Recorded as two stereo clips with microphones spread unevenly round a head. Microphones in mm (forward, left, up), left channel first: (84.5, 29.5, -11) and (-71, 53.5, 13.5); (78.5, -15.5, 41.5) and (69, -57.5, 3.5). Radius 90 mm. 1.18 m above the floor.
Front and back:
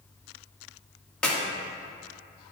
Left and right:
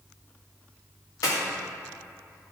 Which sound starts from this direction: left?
A clap, at 1.2 s.